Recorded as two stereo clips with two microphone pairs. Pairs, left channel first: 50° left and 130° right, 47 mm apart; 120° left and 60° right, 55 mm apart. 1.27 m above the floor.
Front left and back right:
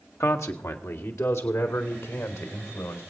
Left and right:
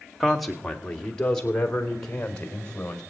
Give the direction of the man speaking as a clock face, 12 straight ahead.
11 o'clock.